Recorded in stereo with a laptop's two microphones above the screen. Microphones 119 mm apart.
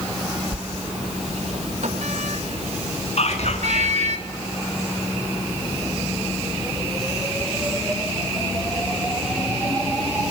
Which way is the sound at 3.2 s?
65° left (ahead or behind).